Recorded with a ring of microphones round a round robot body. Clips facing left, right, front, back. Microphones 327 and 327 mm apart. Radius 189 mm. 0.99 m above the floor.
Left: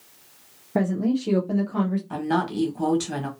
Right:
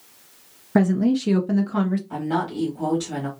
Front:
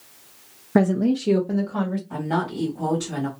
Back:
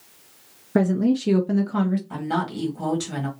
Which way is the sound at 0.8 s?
75° right.